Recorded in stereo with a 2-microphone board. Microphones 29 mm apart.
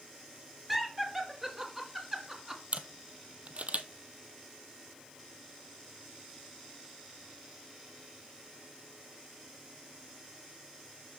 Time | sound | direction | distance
0.7 | laughter | 5° right (ahead or behind) | 2.5 m
2.7 | a camera shutter | 50° right (ahead or behind) | 0.8 m